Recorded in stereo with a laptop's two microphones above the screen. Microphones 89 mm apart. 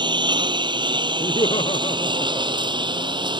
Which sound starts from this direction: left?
Laughter, at 1.2 s.